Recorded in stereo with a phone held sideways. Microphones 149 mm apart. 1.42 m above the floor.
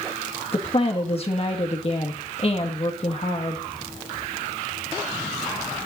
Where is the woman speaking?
40° left (ahead or behind), 1.8 m.